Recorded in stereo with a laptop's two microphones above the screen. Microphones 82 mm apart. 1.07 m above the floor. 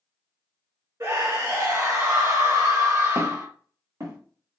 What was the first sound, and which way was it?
A scream, 40° right (ahead or behind).